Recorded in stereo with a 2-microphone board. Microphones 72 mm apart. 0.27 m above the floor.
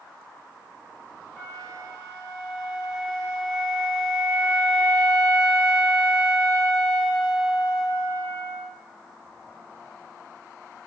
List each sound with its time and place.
1.4 s a flute: 10° left (ahead or behind), 1.4 m